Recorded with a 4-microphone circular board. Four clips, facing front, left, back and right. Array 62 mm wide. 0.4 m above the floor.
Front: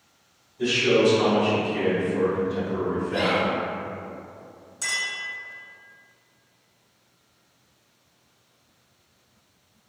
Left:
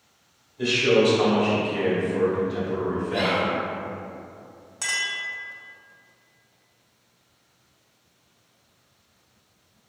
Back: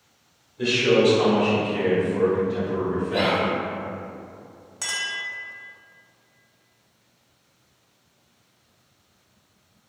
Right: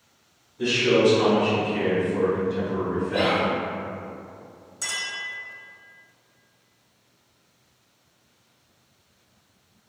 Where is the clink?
130° left, 1.5 m.